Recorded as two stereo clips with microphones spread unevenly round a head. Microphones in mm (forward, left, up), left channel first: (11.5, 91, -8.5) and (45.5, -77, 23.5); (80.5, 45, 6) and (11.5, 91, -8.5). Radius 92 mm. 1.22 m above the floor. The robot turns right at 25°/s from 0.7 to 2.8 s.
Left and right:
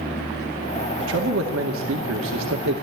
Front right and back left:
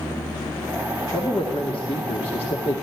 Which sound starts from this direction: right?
A man speaking, at 1.0 s.